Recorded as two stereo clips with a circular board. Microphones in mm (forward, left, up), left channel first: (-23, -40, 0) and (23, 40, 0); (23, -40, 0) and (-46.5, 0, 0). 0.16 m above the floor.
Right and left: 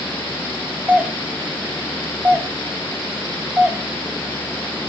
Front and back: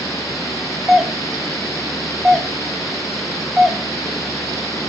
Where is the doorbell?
70° left, 1.4 m.